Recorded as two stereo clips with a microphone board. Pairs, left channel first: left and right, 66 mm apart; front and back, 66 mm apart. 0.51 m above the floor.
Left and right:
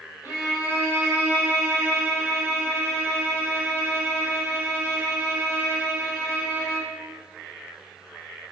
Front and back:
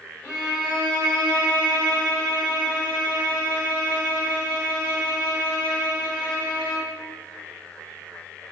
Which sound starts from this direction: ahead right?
A violin, at 0.2 s.